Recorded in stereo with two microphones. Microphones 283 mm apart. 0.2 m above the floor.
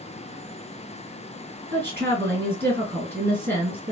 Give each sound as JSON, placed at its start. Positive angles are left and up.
{"t": 1.7, "sound": "a woman speaking", "side_deg": -35, "distance_m": 1.9}